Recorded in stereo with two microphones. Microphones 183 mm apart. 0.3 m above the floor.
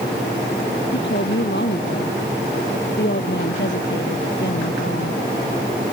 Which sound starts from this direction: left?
A woman speaking, at 0.9 s.